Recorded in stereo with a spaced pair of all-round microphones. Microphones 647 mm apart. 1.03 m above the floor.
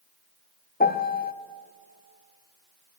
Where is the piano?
15° left (ahead or behind), 0.6 m.